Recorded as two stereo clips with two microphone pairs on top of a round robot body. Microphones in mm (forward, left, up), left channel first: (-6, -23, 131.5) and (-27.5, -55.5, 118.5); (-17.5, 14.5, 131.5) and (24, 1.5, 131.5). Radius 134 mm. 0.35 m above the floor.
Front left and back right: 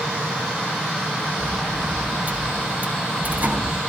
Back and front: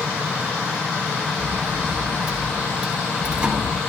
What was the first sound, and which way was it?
A sliding door, 90° right.